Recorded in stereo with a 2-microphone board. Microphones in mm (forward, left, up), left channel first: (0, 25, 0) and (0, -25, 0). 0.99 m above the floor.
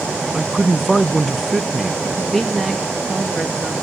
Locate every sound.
0.3 s a man speaking: 5° left (ahead or behind), 0.5 m
2.0 s a woman speaking: 5° left (ahead or behind), 1.6 m